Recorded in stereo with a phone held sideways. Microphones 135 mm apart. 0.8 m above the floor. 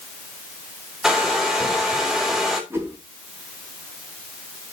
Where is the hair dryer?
5° right (ahead or behind), 3 m.